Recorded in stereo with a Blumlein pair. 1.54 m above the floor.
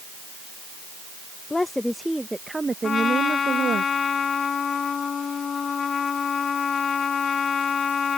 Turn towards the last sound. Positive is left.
turn(degrees=20)